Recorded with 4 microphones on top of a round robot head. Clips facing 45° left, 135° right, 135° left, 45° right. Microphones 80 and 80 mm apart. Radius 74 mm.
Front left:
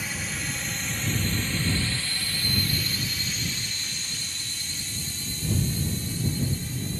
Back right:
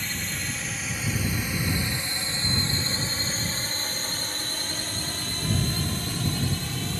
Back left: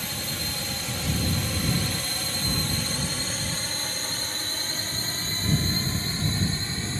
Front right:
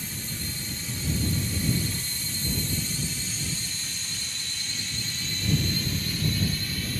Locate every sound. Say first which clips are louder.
0.0 s a drone: even, back left 3 dB; 130° left; by 7.0 s 160° right